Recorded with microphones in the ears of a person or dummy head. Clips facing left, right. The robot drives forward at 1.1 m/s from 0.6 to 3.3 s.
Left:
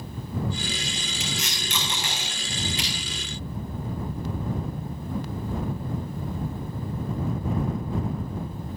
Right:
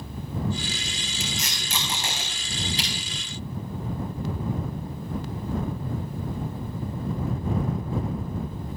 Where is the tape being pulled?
35° right (ahead or behind), 5.5 m; by 2.9 s 25° right (ahead or behind), 7.5 m.